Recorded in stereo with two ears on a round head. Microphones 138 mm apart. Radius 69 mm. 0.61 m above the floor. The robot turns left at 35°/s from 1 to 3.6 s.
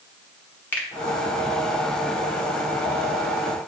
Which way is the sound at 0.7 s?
15° left (ahead or behind).